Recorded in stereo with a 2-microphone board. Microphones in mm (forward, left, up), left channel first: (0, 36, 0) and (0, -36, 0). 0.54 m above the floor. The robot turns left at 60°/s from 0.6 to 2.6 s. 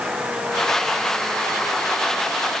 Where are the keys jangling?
I don't hear keys jangling.